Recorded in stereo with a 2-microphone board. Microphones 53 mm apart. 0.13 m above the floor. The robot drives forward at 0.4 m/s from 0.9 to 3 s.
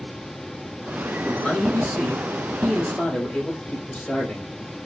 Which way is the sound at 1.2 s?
25° left (ahead or behind).